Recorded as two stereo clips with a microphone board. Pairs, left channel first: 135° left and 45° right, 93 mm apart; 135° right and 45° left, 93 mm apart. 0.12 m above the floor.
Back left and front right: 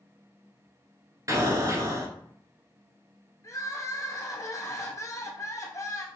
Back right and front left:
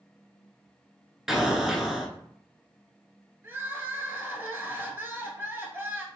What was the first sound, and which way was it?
An explosion, 35° right.